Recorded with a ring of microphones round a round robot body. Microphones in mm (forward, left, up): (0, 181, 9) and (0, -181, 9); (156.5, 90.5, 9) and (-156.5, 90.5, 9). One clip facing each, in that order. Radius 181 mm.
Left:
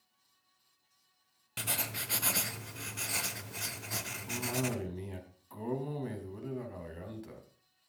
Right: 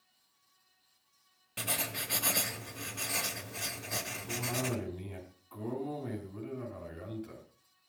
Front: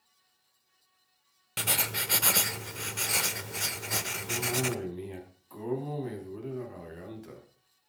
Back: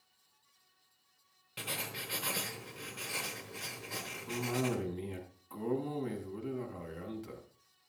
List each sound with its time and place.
1.6 s writing: 15° left, 1.0 m
4.3 s a cough: 95° left, 4.5 m